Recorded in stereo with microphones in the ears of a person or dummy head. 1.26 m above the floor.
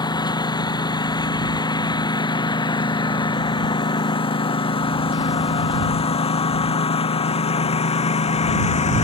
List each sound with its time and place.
0.0 s a lawn mower: 30° left (ahead or behind); by 9.1 s 45° left (ahead or behind)